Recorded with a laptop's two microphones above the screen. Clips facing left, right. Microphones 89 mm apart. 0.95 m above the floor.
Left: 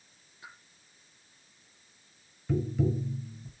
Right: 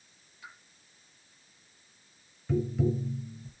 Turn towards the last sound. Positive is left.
turn(degrees=0)  # may be behind; listen again after turning